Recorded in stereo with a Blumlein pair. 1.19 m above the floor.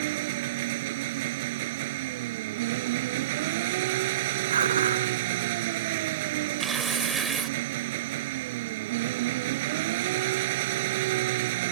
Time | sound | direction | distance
0.0 | an engine running | 50° right | ?
4.5 | dishes clattering | 70° right | ?
6.6 | tearing paper | 15° right | ?